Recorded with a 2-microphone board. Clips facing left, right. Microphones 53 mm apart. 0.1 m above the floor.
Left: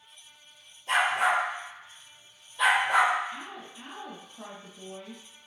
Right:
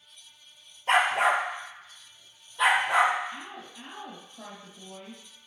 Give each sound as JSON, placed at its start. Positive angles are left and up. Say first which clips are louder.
{"t": 0.9, "sound": "a dog barking", "louder": "right 2 dB", "side_deg": -60, "distance_m": 0.8}
{"t": 3.3, "sound": "a woman speaking", "louder": "left 1 dB", "side_deg": -5, "distance_m": 2.0}